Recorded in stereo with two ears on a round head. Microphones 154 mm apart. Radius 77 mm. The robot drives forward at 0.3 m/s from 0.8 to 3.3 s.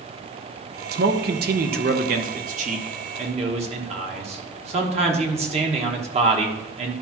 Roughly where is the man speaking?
Right.